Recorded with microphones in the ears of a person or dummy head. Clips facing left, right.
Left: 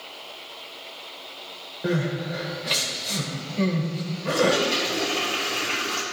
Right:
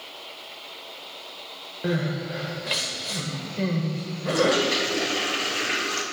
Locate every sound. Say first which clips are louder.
1.8 s crying: left 1 dB; centre (ahead or behind), 1.4 m
4.3 s a toilet flushing: even; 20° right (ahead or behind), 1.1 m